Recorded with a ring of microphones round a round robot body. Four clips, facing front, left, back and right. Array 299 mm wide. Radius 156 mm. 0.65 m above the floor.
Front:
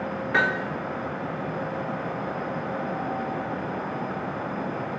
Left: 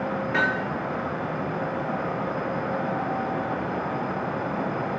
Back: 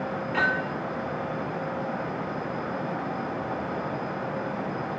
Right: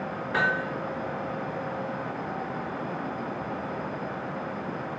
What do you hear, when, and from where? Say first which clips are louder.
0.3 s hammering: even, front 2 dB; 5° left, 8 m